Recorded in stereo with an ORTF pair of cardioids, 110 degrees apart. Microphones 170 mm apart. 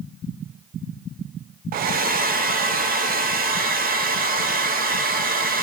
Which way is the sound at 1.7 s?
60° right.